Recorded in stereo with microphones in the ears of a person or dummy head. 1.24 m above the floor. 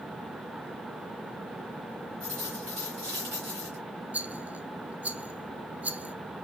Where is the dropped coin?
15° right (ahead or behind), 3 m.